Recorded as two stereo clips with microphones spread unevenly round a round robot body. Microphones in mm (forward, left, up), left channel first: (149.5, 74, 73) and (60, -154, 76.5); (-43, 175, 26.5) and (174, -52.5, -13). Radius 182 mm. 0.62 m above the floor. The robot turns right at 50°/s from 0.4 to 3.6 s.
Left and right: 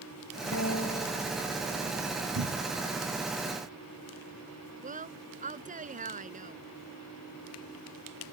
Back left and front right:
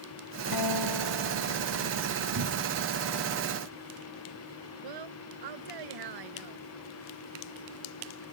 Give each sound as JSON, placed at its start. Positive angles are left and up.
{"t": 0.5, "sound": "a guitar", "azimuth_deg": 120}
{"t": 2.4, "sound": "a cupboard door", "azimuth_deg": -85}
{"t": 4.8, "sound": "a woman speaking", "azimuth_deg": -55}